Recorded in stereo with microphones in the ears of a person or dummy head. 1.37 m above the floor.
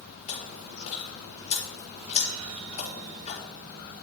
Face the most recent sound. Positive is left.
turn(degrees=40)  # may be behind; listen again after turning